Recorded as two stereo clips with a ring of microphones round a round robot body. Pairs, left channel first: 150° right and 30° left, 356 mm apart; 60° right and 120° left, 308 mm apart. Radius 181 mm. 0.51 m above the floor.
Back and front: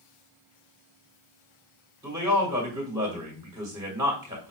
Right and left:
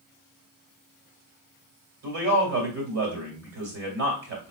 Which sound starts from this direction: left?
A man speaking, at 2.0 s.